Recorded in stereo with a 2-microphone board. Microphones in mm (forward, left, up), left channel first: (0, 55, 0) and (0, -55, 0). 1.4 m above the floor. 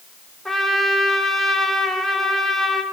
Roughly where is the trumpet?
Centre.